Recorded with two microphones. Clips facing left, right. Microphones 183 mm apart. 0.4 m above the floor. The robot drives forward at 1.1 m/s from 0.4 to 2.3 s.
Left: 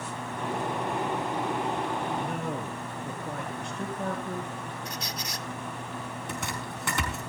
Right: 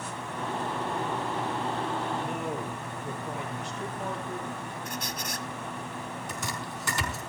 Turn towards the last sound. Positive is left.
turn(degrees=60)  # may be behind; listen again after turning